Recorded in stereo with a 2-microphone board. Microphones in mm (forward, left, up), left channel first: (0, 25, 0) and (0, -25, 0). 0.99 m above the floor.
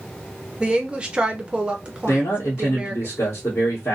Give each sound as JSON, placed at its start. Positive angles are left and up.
{"t": 0.6, "sound": "a woman speaking", "side_deg": -25, "distance_m": 0.6}
{"t": 2.1, "sound": "a man speaking", "side_deg": 50, "distance_m": 1.0}